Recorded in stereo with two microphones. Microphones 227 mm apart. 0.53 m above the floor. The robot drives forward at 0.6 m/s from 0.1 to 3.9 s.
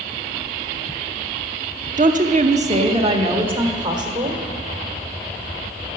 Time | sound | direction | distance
2.0 | a woman speaking | 35° right (ahead or behind) | 0.7 m